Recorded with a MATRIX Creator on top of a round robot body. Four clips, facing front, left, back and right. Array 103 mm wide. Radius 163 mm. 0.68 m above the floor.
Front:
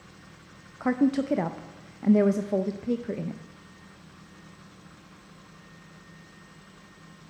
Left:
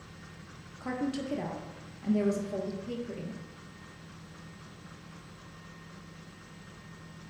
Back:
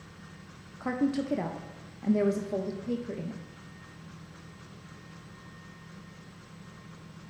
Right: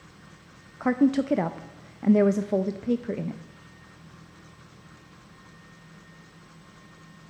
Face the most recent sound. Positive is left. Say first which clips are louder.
# right 11 dB, front 5 dB
turn(degrees=-65)